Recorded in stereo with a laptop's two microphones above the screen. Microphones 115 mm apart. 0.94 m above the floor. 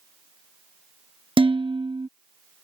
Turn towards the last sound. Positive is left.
turn(degrees=-50)  # may be behind; listen again after turning